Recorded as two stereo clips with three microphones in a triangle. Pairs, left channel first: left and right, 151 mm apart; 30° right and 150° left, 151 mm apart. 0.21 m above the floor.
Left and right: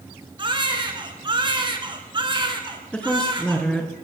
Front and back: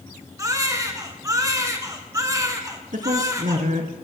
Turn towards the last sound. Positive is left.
turn(degrees=170)